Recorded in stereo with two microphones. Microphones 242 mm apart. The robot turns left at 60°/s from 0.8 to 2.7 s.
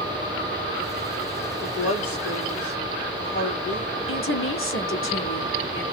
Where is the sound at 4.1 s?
55° left (ahead or behind), 1.1 m.